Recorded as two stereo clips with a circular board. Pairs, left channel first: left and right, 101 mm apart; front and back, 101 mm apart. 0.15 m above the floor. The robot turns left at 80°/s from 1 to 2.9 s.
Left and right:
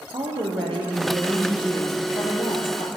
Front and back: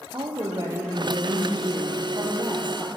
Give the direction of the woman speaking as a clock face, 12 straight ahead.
4 o'clock.